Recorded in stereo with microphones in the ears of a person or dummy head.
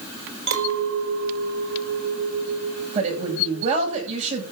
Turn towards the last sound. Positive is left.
turn(degrees=-35)  # may be behind; listen again after turning